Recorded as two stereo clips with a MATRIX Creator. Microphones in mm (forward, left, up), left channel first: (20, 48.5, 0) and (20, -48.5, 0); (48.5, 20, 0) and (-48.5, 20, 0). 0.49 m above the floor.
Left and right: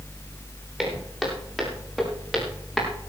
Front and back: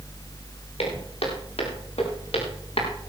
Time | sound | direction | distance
0.8 | footsteps | 5° right | 8.5 m